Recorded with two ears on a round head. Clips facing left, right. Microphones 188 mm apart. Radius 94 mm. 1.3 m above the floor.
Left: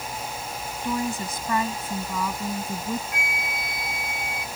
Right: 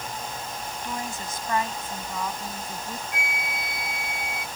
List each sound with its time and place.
0.8 s a woman speaking: 80° left; by 3.0 s 75° left (ahead or behind)
3.1 s a flute: centre (ahead or behind)